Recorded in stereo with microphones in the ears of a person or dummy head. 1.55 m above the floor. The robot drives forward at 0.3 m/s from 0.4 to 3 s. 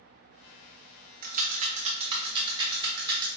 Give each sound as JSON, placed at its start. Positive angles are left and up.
{"t": 1.2, "sound": "a rattle", "side_deg": -50, "distance_m": 0.6}